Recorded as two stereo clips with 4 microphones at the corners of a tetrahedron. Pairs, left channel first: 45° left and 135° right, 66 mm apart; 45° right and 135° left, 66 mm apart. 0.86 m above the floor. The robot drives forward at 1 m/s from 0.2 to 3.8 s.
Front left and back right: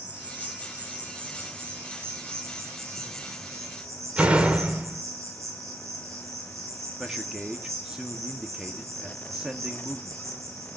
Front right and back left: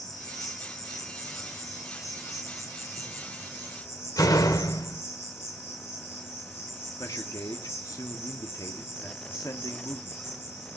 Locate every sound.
0.0 s an insect: 70° right, 7.5 m; by 10.8 s 95° right, 7 m
4.2 s a door slam: 65° right, 2.5 m
7.0 s a man speaking: 55° right, 1.6 m